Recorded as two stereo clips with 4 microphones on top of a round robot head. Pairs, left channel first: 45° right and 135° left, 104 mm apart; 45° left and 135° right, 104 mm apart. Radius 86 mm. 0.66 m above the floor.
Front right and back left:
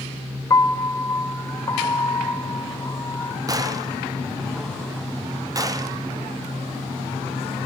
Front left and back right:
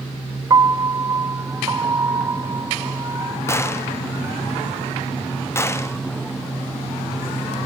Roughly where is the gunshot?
Left.